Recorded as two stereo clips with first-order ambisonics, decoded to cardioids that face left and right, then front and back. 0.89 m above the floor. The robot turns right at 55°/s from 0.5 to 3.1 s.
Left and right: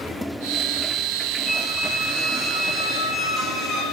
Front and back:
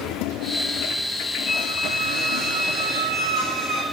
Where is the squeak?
35° left, 1.0 m; by 3.8 s 125° left, 1.0 m.